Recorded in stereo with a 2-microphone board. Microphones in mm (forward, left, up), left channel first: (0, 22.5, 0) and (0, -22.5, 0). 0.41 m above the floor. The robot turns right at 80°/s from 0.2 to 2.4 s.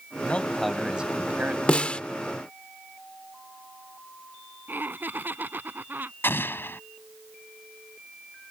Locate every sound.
0.2 s a man speaking: 140° left; by 1.6 s 110° right
1.7 s a snare drum: 25° left (ahead or behind)
4.7 s laughter: 50° right (ahead or behind)
6.2 s an explosion: 60° left (ahead or behind)